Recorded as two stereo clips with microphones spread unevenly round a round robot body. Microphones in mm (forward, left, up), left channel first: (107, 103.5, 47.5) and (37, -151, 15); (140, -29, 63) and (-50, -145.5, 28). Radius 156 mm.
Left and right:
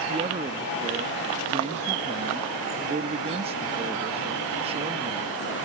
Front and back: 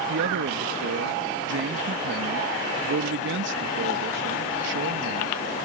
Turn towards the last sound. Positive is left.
turn(degrees=-170)